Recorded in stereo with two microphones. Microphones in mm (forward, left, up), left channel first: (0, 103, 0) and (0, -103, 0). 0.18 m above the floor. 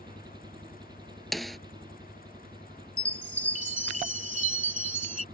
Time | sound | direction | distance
0.0 | an engine running | 20° right (ahead or behind) | ?
1.3 | a snare drum | centre (ahead or behind) | ?
3.0 | a chime | 40° right (ahead or behind) | ?